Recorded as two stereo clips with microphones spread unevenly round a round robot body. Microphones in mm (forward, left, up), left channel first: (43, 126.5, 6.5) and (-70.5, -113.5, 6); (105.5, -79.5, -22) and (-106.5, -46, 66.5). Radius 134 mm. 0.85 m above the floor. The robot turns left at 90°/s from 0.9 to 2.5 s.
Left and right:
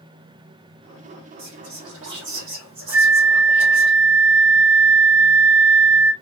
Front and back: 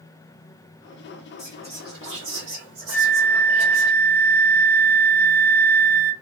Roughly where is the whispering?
Ahead right.